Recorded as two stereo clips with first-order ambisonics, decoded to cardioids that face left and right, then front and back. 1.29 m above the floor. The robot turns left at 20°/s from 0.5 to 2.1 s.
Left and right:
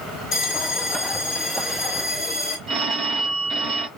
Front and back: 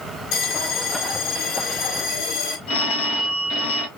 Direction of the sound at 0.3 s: 20° left.